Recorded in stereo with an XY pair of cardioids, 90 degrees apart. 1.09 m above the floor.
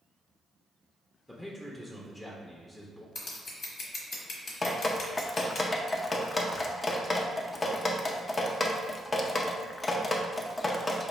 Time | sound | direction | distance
1.3 | a man speaking | 15° left | 0.7 m
3.1 | scissors | 65° left | 1.1 m
4.6 | dripping | 30° left | 0.5 m